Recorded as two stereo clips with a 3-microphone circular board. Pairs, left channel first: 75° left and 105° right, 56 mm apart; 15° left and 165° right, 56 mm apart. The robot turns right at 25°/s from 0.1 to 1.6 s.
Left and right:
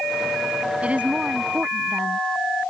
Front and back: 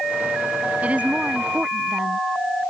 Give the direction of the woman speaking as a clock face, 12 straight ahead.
5 o'clock.